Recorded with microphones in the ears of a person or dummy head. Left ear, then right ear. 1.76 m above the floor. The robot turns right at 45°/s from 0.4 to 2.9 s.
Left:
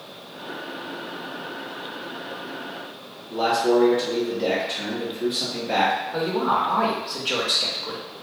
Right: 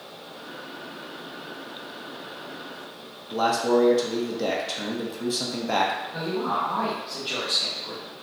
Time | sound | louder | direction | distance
3.3 | a man speaking | left 2 dB | 65° right (ahead or behind) | 0.7 m
6.1 | a woman speaking | left 5 dB | 25° left (ahead or behind) | 0.5 m